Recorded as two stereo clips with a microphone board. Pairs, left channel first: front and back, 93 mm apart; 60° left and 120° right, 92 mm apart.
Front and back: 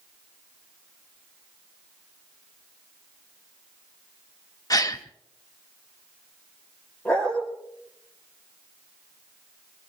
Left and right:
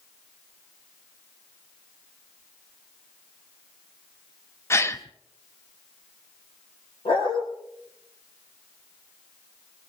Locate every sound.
4.7 s a gasp: 15° left, 0.9 m
7.0 s a dog barking: 80° left, 5 m